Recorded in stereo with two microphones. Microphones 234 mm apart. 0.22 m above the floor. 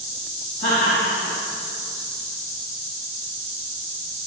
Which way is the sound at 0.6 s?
40° left (ahead or behind).